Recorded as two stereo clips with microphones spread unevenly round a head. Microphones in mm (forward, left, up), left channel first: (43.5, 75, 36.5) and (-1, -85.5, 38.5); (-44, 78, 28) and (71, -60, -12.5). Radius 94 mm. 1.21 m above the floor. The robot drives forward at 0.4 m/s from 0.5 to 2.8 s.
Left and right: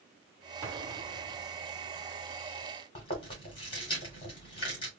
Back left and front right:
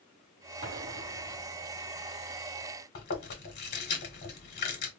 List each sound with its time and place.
0.6 s an explosion: 25° right, 1.7 m; by 1.5 s 35° right, 1.4 m
3.0 s chewing: 140° left, 2 m